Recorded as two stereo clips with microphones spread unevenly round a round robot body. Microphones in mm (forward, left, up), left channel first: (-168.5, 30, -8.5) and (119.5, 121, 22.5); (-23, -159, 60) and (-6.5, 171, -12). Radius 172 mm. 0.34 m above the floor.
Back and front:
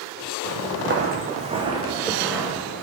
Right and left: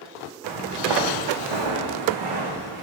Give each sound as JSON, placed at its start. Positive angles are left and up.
{"t": 0.4, "sound": "footsteps", "azimuth_deg": 45, "distance_m": 0.8}